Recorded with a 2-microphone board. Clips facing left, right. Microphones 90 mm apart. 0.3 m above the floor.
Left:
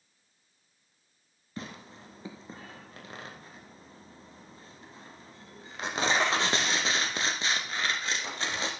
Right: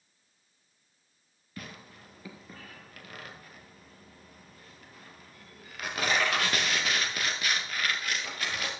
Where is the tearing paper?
25° left (ahead or behind), 1.5 m.